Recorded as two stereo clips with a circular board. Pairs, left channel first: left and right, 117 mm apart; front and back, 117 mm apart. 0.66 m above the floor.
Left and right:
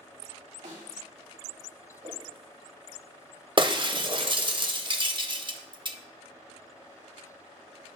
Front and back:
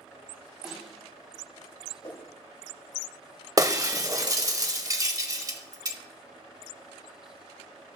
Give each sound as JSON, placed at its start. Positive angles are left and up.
{"t": 0.6, "sound": "a snare drum", "azimuth_deg": -95, "distance_m": 3.0}
{"t": 2.0, "sound": "a whoosh", "azimuth_deg": -50, "distance_m": 2.5}
{"t": 3.6, "sound": "breaking glass", "azimuth_deg": -125, "distance_m": 0.6}